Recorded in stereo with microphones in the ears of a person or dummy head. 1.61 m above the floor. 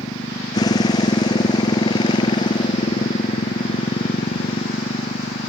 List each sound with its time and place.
0.0 s a motorcycle: 25° left (ahead or behind); by 5.5 s 35° left (ahead or behind)